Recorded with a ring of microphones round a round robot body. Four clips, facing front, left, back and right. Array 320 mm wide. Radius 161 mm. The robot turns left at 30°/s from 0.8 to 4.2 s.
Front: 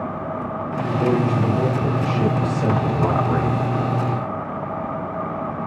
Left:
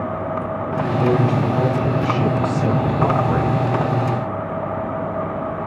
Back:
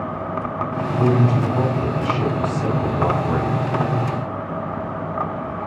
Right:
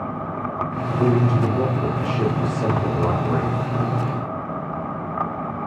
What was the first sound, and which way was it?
A man speaking, 175° left.